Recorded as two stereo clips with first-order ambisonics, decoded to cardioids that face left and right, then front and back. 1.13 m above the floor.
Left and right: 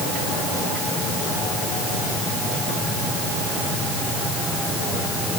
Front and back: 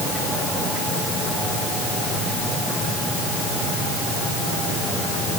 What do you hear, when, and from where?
Only background noise.